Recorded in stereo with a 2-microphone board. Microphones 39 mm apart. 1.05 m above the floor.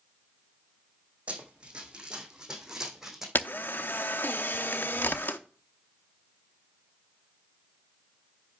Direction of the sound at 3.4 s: 60° left (ahead or behind).